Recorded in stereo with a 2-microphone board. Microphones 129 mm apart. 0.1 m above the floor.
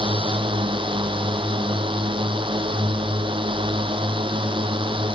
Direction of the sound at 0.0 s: 45° right (ahead or behind).